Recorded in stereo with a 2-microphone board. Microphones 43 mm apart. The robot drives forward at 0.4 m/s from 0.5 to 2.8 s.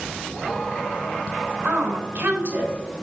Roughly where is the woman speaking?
Right.